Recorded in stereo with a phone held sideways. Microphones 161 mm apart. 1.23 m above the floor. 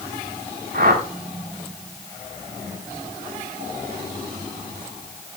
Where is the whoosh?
80° right, 3.5 m.